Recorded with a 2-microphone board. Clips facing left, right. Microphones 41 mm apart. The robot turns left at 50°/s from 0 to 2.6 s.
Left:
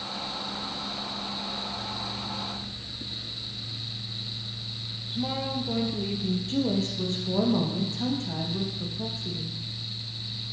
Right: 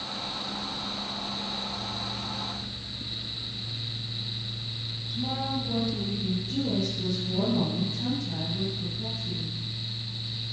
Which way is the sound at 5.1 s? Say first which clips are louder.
Left 1 dB; 35° left (ahead or behind).